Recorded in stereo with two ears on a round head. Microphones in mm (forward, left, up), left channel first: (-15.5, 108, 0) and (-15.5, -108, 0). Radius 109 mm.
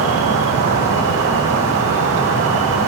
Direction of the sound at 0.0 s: 60° right (ahead or behind).